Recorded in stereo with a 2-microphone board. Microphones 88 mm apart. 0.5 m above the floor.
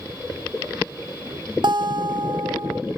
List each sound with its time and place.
1.6 s a guitar: 60° right (ahead or behind), 0.6 m